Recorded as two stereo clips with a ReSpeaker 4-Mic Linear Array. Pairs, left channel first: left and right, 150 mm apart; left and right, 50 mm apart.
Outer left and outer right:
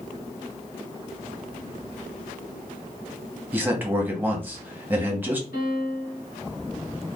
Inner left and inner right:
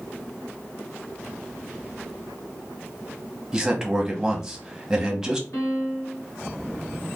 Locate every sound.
3.5 s a man speaking: 15° right (ahead or behind), 1.0 m
5.5 s a piano: 65° left (ahead or behind), 1.7 m